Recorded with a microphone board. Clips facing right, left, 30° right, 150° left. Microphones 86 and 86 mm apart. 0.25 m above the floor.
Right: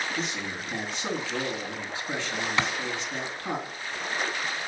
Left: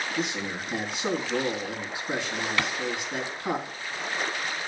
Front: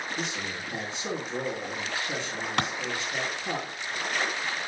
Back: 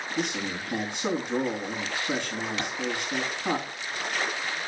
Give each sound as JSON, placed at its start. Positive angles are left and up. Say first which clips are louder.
{"t": 0.2, "sound": "a man speaking", "louder": "left 2 dB, back 4 dB", "azimuth_deg": 165, "distance_m": 3.0}
{"t": 2.6, "sound": "a clap", "louder": "right 2 dB, front 4 dB", "azimuth_deg": -25, "distance_m": 1.7}